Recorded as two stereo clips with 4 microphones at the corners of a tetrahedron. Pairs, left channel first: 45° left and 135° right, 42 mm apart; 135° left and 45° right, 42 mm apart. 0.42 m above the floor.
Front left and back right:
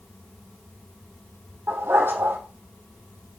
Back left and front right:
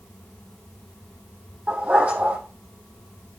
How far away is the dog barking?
About 3.5 m.